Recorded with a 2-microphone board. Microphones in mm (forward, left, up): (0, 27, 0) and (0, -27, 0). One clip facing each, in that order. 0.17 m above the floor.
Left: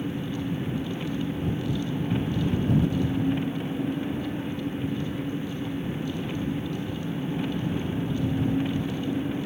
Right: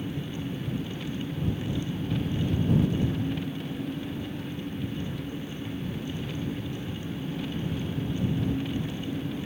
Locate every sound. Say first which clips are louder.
0.0 s an engine running: left 4 dB; 25° left (ahead or behind)